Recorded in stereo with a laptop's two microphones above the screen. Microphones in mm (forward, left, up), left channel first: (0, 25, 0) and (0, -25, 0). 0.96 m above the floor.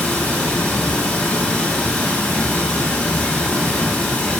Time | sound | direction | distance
0.0 | running water | 30° left (ahead or behind) | 1.2 m